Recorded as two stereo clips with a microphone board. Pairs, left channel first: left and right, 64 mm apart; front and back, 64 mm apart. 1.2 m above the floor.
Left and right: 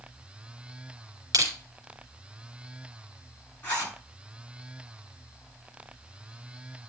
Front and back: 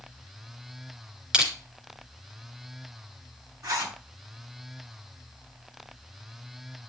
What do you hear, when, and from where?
1.3 s crushing: 105° right, 3 m
3.6 s a zipper: 155° left, 6.5 m